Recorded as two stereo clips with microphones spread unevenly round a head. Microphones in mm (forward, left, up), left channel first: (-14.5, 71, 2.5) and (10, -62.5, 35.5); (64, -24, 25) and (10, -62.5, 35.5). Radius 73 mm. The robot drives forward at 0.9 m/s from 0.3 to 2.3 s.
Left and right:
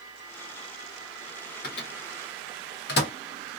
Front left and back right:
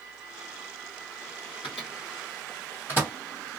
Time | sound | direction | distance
1.6 | a microwave | 75° left | 1.0 m